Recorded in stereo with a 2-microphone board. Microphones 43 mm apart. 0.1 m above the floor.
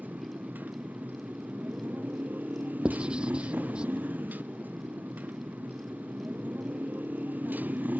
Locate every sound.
0.0 s a motorcycle: 45° right (ahead or behind)
2.9 s writing: 25° right (ahead or behind)